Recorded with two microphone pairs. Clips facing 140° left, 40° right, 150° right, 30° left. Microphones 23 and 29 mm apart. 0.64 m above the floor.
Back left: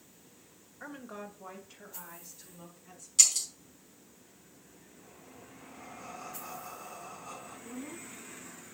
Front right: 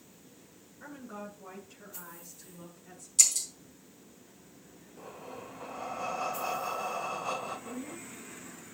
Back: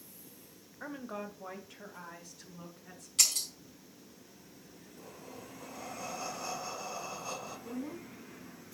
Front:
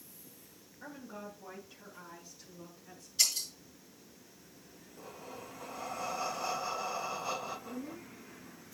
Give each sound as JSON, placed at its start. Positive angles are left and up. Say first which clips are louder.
{"t": 0.8, "sound": "a woman speaking", "louder": "even, back 5 dB", "azimuth_deg": -170, "distance_m": 1.8}
{"t": 3.2, "sound": "breaking glass", "louder": "back left 1 dB, back 1 dB", "azimuth_deg": -155, "distance_m": 4.0}
{"t": 5.0, "sound": "breathing", "louder": "front right 10 dB, front 2 dB", "azimuth_deg": -40, "distance_m": 0.8}
{"t": 7.6, "sound": "a woman speaking", "louder": "front right 2 dB, back 2 dB", "azimuth_deg": -165, "distance_m": 5.0}